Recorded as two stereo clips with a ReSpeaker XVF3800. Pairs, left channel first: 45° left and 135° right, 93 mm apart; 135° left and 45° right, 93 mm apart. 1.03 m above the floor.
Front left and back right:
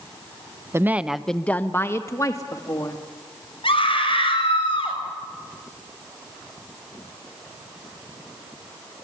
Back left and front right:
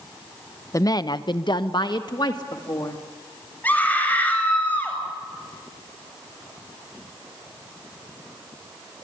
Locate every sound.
0.7 s a woman speaking: 175° left, 0.7 m; by 3.0 s 90° left, 2 m
3.6 s a scream: 60° left, 7 m